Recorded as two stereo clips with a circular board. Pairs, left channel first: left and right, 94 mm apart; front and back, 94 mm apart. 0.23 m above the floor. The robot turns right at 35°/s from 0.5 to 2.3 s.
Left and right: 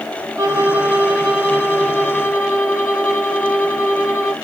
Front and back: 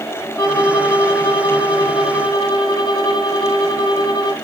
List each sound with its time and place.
0.4 s a violin: 35° right, 1.5 m; by 4.3 s 30° left, 1.5 m